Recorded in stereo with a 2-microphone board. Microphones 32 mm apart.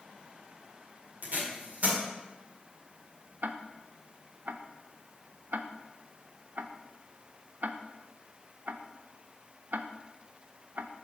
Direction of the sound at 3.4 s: 65° right (ahead or behind).